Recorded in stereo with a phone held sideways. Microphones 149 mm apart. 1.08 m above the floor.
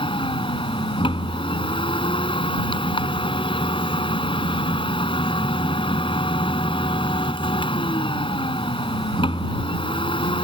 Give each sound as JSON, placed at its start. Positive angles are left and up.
{"t": 0.0, "sound": "a machine running", "side_deg": 35}